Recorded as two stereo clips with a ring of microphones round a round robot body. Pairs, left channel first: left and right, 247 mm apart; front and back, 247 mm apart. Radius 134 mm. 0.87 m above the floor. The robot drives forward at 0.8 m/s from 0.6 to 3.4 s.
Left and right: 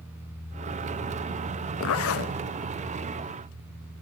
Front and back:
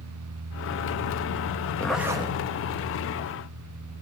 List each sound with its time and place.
1.8 s a zipper: 80° left, 0.9 m; by 2.4 s 115° left, 0.9 m